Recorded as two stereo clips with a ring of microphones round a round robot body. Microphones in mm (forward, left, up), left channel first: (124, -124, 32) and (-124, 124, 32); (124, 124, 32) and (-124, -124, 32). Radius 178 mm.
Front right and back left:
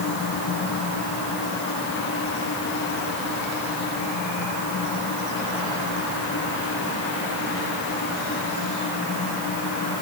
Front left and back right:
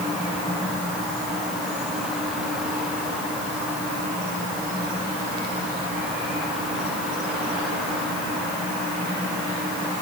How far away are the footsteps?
No footsteps in this recording.